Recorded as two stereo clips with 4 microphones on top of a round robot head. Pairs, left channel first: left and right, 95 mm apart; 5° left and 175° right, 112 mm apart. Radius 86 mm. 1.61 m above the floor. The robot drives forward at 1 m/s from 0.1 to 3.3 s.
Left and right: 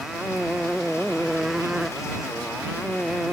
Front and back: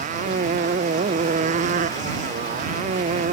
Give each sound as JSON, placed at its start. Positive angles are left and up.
{"t": 0.0, "sound": "a motorcycle", "azimuth_deg": 180}